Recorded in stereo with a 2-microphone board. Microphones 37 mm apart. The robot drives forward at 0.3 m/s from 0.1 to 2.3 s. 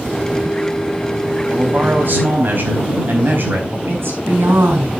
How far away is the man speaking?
About 4.5 m.